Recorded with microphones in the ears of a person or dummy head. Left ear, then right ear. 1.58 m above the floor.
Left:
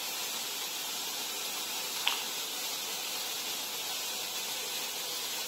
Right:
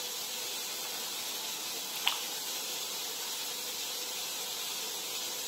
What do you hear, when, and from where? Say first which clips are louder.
1.9 s a splash: even; 5° right (ahead or behind), 1.2 m